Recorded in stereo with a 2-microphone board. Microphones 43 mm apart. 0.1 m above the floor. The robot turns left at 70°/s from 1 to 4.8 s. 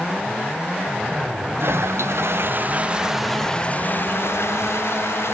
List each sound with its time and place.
1.6 s a toilet flushing: 65° right; by 5.3 s 70° left